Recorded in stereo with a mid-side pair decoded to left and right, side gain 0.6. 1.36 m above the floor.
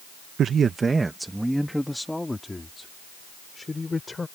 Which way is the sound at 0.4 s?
50° right.